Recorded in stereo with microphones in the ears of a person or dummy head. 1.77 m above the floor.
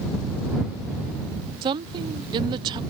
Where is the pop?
I don't hear a pop.